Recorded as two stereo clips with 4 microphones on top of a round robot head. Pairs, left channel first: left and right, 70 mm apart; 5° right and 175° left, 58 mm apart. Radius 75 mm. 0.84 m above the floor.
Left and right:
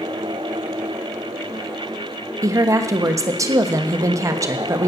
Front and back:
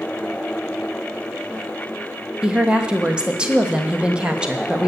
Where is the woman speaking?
115° right, 1.4 m.